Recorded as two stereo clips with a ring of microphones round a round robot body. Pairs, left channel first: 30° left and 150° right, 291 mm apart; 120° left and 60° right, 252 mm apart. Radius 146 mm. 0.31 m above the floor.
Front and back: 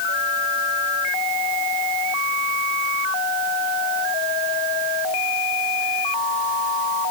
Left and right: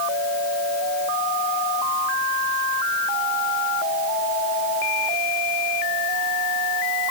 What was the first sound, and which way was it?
Only background noise.